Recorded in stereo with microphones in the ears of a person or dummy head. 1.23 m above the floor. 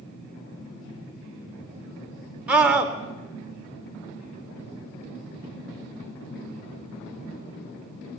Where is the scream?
10° right (ahead or behind), 3 m.